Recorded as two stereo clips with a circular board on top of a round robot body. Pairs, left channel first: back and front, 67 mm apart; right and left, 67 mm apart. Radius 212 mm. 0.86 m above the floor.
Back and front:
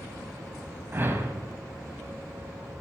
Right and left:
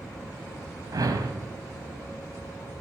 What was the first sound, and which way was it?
A whoosh, 60° left.